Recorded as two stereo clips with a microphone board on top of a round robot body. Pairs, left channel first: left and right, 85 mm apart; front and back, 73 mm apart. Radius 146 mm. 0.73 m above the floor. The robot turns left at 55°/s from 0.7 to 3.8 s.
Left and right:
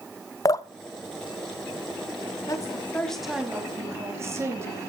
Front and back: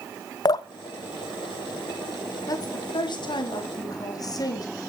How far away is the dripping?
About 0.5 m.